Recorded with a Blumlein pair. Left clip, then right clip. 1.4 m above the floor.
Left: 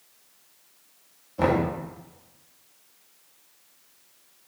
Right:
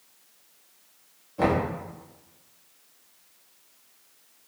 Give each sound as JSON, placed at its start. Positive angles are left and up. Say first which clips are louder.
{"t": 1.4, "sound": "knocking", "louder": "left 1 dB", "azimuth_deg": 5, "distance_m": 1.7}